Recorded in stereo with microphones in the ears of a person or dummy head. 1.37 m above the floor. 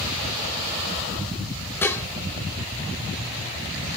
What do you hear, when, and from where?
1.8 s dishes clattering: 10° left (ahead or behind), 0.6 m